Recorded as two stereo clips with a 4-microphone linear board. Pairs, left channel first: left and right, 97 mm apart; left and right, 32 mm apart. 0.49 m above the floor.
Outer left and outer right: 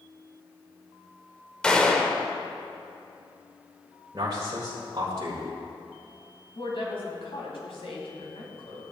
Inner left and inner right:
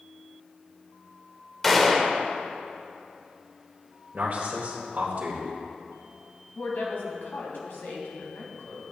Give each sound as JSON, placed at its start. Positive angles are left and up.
{"t": 1.6, "sound": "a gunshot", "side_deg": 10, "distance_m": 0.9}
{"t": 4.1, "sound": "a man speaking", "side_deg": -50, "distance_m": 1.9}
{"t": 6.5, "sound": "a woman speaking", "side_deg": 70, "distance_m": 2.5}